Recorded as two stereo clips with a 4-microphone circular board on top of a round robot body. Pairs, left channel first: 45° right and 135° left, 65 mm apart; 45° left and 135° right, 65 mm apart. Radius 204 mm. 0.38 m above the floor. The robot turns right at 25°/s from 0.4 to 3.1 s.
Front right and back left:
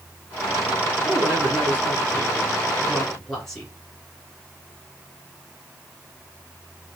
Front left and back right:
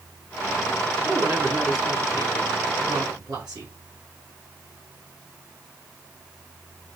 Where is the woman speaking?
Straight behind, 2.5 m; by 3.7 s 125° right, 2.5 m.